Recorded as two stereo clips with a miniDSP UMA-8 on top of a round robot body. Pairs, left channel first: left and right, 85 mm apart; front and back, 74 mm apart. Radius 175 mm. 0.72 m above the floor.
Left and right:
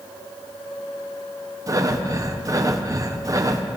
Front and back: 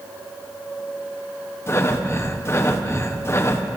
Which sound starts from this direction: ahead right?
Breathing, at 1.7 s.